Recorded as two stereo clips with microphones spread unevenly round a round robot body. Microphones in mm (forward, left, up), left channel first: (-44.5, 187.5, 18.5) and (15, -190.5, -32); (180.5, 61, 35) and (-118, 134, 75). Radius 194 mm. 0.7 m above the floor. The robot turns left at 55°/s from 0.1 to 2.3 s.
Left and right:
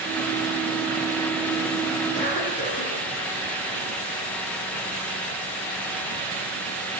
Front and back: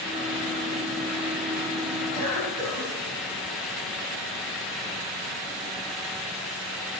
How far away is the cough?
About 4.5 m.